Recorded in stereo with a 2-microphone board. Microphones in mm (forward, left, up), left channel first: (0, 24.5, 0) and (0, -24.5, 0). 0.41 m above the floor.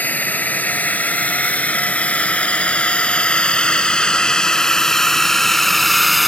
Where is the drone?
35° left (ahead or behind); by 6.3 s centre (ahead or behind).